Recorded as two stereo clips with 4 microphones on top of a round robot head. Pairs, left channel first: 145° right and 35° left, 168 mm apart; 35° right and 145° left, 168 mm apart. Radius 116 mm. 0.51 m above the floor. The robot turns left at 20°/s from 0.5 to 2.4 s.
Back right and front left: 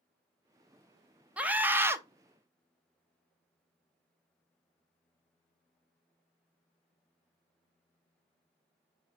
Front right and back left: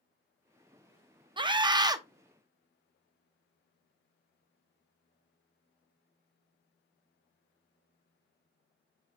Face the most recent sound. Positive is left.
turn(degrees=90)